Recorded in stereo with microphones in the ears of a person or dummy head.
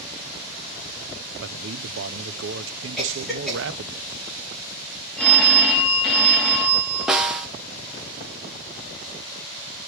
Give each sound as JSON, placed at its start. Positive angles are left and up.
{"t": 1.4, "sound": "a man speaking", "side_deg": -60, "distance_m": 0.5}
{"t": 3.0, "sound": "a cough", "side_deg": 0, "distance_m": 3.5}
{"t": 5.2, "sound": "a phone ringing", "side_deg": 5, "distance_m": 1.4}
{"t": 7.1, "sound": "a snare drum", "side_deg": 0, "distance_m": 0.5}